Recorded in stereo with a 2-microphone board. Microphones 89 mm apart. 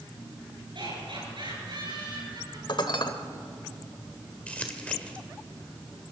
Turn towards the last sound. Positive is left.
turn(degrees=15)  # may be behind; listen again after turning